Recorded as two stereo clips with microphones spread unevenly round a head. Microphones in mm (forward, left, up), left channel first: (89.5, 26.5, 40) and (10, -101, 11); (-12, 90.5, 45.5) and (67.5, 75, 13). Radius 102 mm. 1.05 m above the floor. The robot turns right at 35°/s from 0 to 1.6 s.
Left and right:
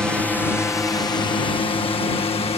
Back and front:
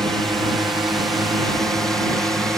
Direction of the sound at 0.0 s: 45° right.